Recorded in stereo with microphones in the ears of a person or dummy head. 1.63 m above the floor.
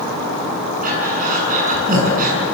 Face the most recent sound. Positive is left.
turn(degrees=-45)  # may be behind; listen again after turning